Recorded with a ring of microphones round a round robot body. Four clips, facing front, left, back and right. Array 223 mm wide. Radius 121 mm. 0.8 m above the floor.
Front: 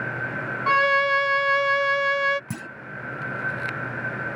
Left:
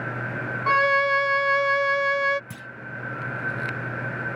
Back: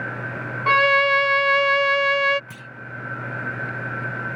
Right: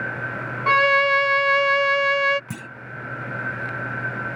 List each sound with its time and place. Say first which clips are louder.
0.7 s a violin: right 3 dB, back 3 dB; 145° right
2.5 s a clunk: right 5 dB, front 6 dB; 35° right